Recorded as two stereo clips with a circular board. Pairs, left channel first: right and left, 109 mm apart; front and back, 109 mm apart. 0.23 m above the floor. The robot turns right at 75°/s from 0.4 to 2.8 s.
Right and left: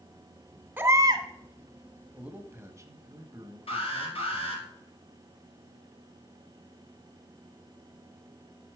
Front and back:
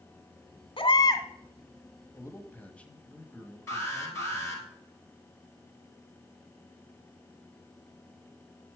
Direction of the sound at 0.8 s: 25° left.